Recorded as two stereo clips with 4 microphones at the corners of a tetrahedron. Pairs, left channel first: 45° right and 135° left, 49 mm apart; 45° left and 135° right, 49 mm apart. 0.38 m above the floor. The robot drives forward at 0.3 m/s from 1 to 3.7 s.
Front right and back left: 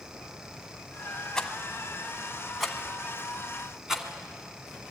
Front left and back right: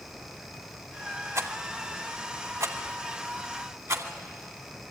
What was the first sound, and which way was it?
A rattle, 120° right.